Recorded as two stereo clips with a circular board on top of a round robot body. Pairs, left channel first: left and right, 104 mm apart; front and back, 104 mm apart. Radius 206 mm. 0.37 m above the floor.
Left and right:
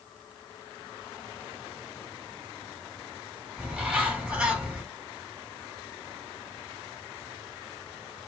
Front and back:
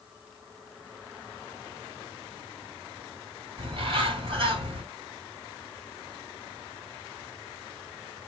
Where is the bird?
170° right, 2.5 m.